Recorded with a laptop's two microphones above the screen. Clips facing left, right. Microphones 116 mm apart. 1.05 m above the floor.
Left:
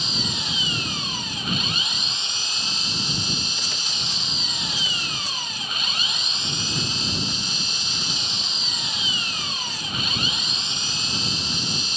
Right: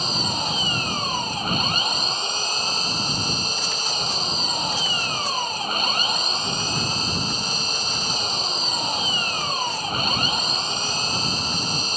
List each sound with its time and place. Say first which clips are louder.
0.0 s an engine running: right 5 dB; 45° right (ahead or behind)